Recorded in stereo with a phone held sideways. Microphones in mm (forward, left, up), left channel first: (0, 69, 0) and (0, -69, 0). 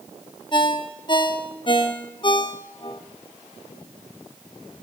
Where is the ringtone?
35° left (ahead or behind), 0.7 m.